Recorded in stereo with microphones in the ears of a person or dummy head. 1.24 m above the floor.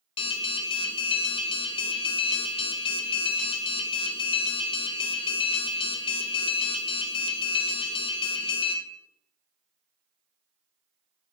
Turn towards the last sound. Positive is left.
turn(degrees=30)  # may be behind; listen again after turning